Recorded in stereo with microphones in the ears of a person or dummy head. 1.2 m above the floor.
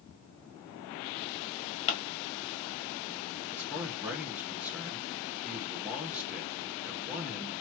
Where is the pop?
35° left (ahead or behind), 1.6 m.